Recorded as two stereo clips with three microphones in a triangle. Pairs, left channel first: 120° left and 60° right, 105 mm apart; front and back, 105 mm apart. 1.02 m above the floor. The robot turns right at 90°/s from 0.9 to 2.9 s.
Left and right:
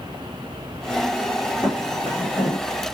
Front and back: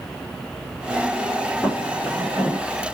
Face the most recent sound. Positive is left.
turn(degrees=140)